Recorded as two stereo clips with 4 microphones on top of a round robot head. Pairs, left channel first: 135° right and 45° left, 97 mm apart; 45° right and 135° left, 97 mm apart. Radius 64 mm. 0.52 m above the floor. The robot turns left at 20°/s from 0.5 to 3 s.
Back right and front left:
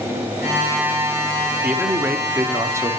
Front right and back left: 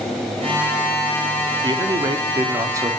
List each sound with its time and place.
1.6 s a man speaking: 115° left, 0.9 m; by 2.9 s 90° left, 0.9 m